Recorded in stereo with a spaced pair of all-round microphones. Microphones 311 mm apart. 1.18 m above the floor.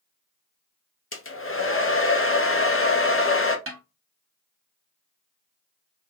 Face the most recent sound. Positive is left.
turn(degrees=-40)  # may be behind; listen again after turning